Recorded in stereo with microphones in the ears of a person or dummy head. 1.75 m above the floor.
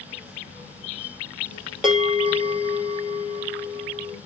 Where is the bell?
5° right (ahead or behind), 1.2 m.